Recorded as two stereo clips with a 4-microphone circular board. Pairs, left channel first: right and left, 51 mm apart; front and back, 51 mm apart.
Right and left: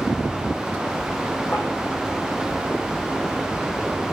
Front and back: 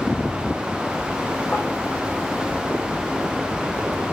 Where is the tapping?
50° right, 7 m.